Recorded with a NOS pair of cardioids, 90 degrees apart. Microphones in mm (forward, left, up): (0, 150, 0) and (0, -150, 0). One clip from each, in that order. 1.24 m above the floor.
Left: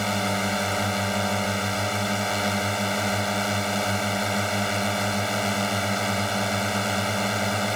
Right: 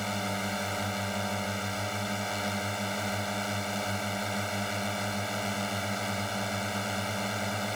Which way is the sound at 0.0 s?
50° left.